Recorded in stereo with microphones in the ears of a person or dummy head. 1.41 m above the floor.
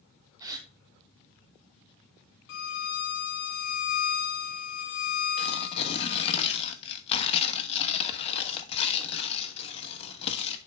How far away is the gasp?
About 1.2 m.